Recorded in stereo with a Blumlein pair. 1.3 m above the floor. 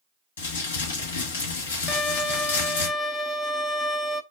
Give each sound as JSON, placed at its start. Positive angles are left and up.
{"t": 0.4, "sound": "crumpling", "azimuth_deg": 60, "distance_m": 2.0}
{"t": 1.9, "sound": "a violin", "azimuth_deg": 10, "distance_m": 0.5}